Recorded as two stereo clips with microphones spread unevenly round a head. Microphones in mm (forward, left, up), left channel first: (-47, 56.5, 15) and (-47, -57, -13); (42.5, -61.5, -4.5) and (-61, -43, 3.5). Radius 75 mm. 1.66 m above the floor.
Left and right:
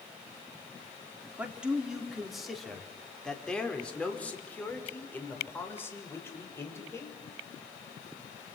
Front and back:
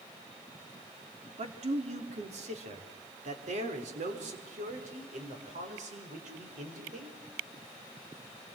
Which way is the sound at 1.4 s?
170° right.